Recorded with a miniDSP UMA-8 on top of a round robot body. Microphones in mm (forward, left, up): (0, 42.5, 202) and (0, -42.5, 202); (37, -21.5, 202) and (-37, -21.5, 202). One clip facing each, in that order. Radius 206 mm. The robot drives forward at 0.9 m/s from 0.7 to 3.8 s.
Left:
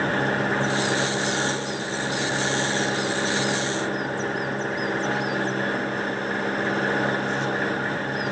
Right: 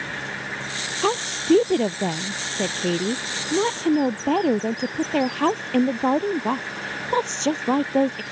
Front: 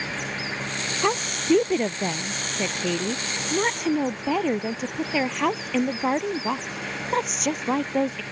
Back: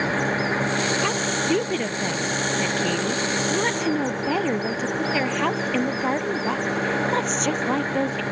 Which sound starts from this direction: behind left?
An engine running, at 0.0 s.